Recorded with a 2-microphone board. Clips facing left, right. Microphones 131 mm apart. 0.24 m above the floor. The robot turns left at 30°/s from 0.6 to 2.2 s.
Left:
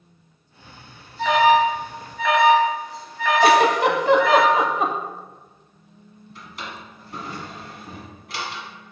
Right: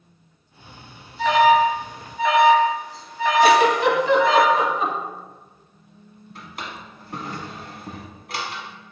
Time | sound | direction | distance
1.2 | an alarm | 5° right (ahead or behind) | 1.3 m
3.4 | a giggle | 50° left (ahead or behind) | 0.5 m
6.3 | a drawer | 55° right (ahead or behind) | 1.0 m